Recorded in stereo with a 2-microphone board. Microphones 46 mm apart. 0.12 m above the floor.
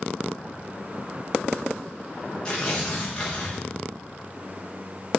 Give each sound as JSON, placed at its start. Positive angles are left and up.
{"t": 2.5, "sound": "tearing paper", "side_deg": 15, "distance_m": 5.0}